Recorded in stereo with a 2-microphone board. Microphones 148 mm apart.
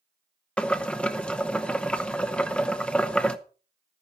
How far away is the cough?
I don't hear a cough.